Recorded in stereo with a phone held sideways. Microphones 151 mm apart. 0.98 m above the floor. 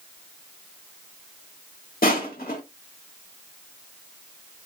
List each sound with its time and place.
2.0 s crushing: 75° left (ahead or behind), 1.9 m